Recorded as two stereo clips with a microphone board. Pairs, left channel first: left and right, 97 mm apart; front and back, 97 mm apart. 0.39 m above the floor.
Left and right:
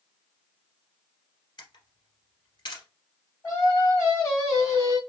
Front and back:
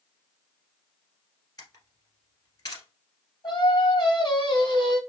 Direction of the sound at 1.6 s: 50° left.